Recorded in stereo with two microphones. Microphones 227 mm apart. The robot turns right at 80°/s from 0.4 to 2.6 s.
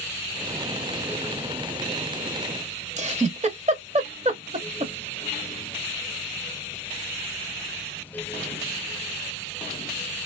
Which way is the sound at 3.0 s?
35° right (ahead or behind).